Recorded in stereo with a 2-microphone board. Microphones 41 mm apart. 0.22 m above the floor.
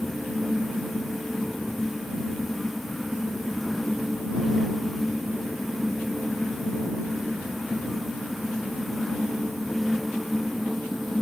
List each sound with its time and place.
Only background noise.